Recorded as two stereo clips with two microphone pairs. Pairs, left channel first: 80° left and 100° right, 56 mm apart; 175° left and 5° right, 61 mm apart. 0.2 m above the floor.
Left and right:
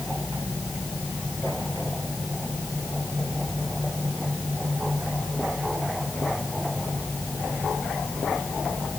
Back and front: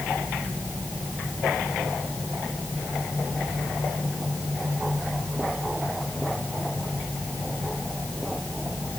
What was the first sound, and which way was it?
Only background noise.